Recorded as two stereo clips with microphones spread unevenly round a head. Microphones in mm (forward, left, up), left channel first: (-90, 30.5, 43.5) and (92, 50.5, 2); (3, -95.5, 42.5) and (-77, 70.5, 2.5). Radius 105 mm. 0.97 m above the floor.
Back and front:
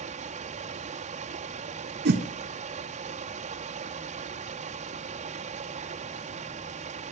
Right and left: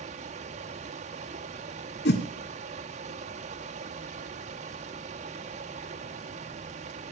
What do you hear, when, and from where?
0.0 s running water: 55° left, 0.9 m
2.0 s a whoosh: 20° right, 1.0 m